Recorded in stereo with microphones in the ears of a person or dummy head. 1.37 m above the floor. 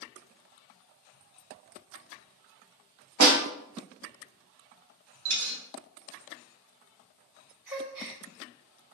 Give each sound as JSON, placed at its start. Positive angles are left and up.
{"t": 3.2, "sound": "a snare drum", "side_deg": -80, "distance_m": 1.3}
{"t": 5.2, "sound": "a dropped coin", "side_deg": -60, "distance_m": 2.0}
{"t": 7.7, "sound": "a gasp", "side_deg": -15, "distance_m": 1.3}